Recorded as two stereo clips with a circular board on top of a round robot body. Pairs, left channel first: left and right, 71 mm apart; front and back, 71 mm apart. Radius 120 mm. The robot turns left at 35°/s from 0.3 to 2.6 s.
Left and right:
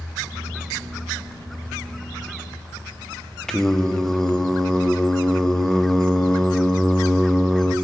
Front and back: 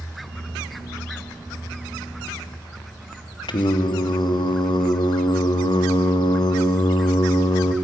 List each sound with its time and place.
3.5 s singing: 5° left, 0.6 m